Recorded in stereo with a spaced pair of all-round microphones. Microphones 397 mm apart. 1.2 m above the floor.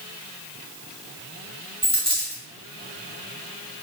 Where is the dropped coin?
15° right (ahead or behind), 1.2 m.